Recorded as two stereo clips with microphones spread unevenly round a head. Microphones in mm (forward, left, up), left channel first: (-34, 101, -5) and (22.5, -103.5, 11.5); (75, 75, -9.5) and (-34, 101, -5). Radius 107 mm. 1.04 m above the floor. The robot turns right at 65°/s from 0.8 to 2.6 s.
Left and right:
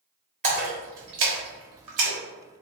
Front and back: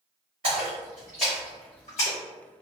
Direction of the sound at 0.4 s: 130° right.